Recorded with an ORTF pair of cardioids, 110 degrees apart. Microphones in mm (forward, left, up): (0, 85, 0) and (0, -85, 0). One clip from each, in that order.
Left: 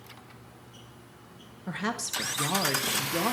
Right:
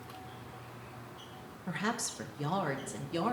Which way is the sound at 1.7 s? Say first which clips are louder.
Left 3 dB; 15° left.